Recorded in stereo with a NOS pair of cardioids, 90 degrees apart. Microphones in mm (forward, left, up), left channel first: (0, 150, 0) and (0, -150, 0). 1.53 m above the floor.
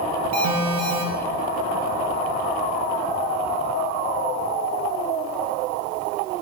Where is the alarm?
70° right, 2.5 m.